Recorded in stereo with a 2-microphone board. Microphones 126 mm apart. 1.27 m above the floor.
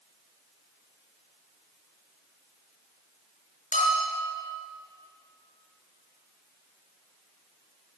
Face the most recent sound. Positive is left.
turn(degrees=80)